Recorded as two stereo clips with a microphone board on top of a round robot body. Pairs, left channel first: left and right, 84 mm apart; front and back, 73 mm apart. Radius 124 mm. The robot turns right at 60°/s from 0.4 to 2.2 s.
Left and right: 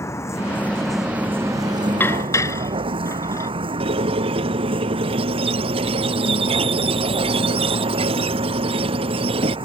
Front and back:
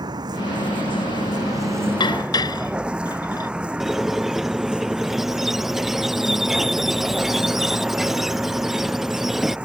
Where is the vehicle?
150° left; by 9.7 s 105° right.